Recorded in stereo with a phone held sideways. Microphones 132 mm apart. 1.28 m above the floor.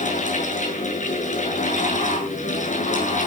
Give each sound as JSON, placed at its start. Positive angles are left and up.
{"t": 0.0, "sound": "a fan", "side_deg": 70, "distance_m": 6.0}